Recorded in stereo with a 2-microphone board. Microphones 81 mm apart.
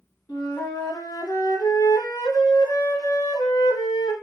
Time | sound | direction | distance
0.3 | a flute | 55° left (ahead or behind) | 0.9 m